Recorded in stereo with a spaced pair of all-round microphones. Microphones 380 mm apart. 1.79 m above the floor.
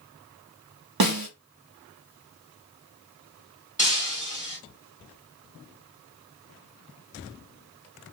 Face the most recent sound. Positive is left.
turn(degrees=20)  # may be behind; listen again after turning